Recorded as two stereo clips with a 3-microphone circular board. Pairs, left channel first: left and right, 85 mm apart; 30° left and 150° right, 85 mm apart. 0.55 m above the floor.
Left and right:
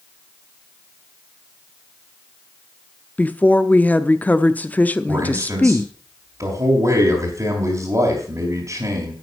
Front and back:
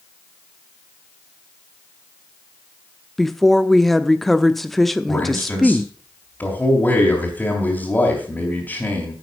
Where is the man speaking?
40° right, 3 m.